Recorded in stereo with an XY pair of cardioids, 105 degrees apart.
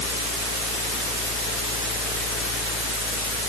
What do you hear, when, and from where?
0.0 s a fan: 65° left